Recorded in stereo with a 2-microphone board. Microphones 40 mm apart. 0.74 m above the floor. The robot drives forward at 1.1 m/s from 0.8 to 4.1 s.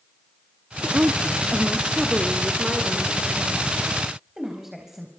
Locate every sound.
0.8 s a woman speaking: 50° right (ahead or behind), 0.8 m; by 5.1 s 10° right (ahead or behind), 4 m